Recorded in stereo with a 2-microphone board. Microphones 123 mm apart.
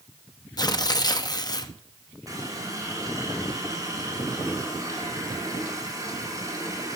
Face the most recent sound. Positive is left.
turn(degrees=-30)  # may be behind; listen again after turning